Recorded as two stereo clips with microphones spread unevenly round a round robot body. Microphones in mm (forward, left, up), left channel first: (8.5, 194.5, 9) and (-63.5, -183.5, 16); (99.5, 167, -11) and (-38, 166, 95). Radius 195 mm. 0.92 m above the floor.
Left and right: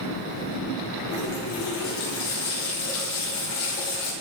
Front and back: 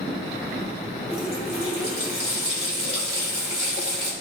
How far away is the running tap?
About 2.5 m.